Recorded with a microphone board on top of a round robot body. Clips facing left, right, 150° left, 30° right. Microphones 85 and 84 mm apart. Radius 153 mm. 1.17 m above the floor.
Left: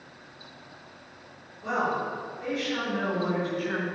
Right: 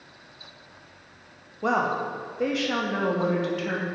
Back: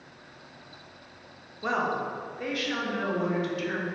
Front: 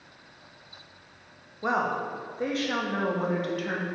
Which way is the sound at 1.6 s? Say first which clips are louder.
Right 3 dB, front 1 dB; 105° right.